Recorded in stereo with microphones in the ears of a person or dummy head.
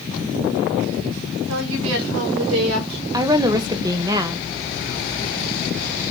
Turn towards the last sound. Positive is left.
turn(degrees=-20)  # may be behind; listen again after turning